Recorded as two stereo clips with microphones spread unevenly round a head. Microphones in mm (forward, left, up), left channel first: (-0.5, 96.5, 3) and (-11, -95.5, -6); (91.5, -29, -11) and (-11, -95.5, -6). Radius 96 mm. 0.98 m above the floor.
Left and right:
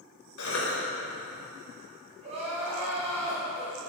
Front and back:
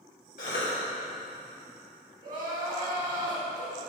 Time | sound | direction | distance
0.4 | a cough | 75° left | 3.5 m
2.2 | crying | 155° right | 3.5 m